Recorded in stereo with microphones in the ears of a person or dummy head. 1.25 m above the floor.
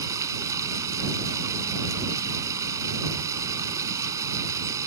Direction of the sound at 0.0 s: 20° right (ahead or behind).